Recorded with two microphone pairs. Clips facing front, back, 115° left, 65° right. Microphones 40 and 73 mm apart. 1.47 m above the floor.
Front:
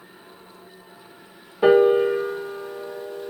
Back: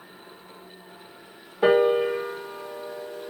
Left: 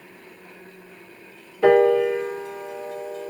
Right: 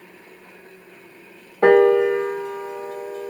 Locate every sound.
1.6 s a piano: 90° right, 1.0 m